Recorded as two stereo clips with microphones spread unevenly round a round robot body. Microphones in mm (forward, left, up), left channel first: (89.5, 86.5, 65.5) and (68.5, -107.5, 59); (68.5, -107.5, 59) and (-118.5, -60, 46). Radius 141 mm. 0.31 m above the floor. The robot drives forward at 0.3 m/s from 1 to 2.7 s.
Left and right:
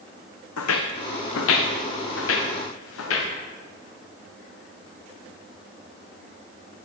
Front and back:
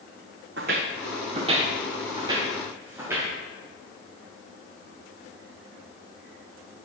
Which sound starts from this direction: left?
Footsteps, at 0.6 s.